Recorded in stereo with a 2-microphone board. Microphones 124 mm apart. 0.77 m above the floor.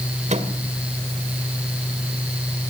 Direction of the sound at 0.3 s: 70° right (ahead or behind).